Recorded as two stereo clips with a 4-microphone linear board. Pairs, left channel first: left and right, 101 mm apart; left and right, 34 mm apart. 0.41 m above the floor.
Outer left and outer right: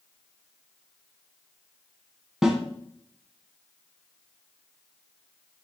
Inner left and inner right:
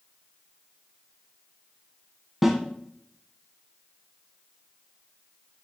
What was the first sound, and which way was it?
A snare drum, 5° right (ahead or behind).